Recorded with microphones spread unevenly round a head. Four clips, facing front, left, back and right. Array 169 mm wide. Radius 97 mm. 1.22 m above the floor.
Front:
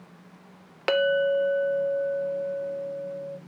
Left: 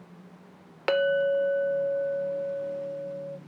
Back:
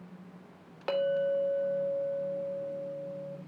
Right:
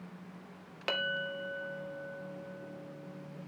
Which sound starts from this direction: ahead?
A clink, at 0.9 s.